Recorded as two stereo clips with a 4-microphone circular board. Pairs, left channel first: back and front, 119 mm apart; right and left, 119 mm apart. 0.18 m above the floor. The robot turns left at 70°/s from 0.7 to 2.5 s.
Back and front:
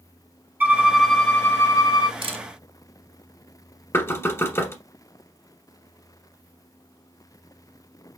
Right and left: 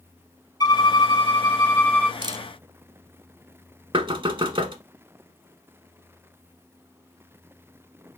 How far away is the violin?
About 0.9 m.